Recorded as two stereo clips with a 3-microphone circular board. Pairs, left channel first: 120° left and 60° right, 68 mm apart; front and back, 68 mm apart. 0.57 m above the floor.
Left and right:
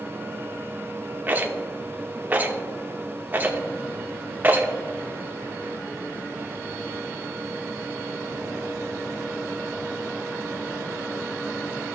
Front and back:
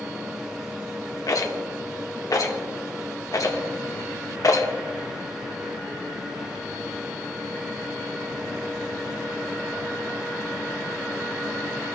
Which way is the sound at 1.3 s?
5° right.